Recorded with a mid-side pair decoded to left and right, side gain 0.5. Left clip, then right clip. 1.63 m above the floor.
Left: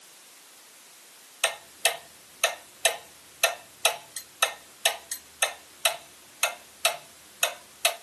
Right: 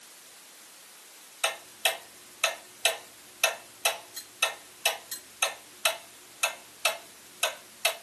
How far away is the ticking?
About 0.9 m.